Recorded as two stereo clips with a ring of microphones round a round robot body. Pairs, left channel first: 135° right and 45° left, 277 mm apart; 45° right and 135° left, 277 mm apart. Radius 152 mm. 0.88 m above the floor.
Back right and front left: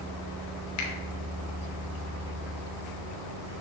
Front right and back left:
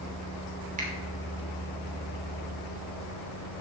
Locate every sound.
0.8 s a finger snap: 160° right, 3 m